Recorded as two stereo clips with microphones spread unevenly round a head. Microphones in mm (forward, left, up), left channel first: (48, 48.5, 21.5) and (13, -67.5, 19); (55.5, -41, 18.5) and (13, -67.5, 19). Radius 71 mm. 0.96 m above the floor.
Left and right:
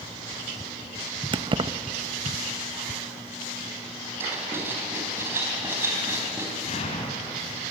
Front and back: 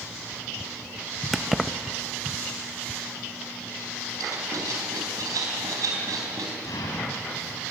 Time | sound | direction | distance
1.3 | keys jangling | 60° right | 0.7 m
4.2 | writing | straight behind | 3.5 m
6.6 | an explosion | 40° left | 4 m